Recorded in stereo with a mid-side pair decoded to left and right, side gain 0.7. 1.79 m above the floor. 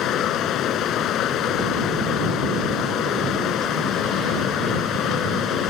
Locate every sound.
0.0 s running water: 45° left